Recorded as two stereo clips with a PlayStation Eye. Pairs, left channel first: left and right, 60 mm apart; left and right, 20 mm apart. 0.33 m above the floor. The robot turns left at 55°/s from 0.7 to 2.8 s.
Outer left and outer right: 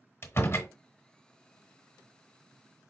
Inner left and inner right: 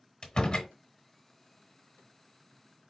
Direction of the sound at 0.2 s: 40° left (ahead or behind).